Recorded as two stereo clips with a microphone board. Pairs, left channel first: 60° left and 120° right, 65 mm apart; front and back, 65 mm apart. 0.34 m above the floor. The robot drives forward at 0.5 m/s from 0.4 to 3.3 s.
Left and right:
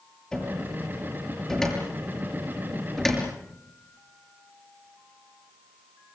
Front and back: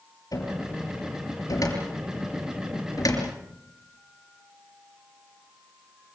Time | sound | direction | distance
0.3 | a cupboard door | 20° right | 7.5 m